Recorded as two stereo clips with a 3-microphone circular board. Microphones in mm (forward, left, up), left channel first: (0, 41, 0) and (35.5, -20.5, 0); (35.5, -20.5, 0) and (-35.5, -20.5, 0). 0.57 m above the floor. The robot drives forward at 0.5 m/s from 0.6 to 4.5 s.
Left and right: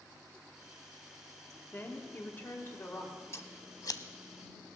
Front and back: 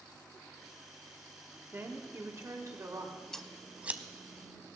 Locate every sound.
1.7 s a woman speaking: 155° left, 1.3 m; by 3.2 s 165° left, 1.8 m
3.3 s scissors: 80° left, 0.5 m; by 4.0 s 120° left, 0.6 m